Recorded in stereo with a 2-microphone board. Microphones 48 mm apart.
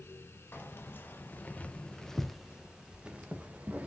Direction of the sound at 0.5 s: 50° left (ahead or behind).